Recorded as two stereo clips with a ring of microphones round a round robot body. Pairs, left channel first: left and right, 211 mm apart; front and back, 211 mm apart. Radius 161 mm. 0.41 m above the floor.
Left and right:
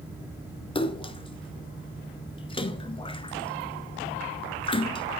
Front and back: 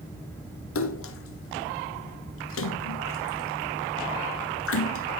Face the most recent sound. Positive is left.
turn(degrees=20)